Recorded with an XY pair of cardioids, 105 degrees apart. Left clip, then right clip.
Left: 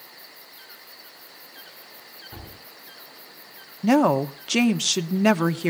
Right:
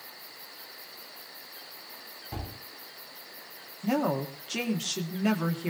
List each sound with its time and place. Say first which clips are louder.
2.3 s a gunshot: right 2 dB; 50° right, 3 m
3.8 s a woman speaking: left 9 dB; 65° left, 1.0 m